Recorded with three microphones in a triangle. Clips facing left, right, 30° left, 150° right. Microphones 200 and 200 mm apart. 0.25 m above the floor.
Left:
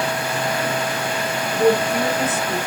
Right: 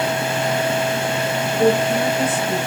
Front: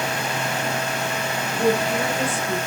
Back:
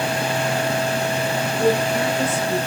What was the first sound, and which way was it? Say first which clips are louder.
A woman speaking: even, back 1 dB; 10° right.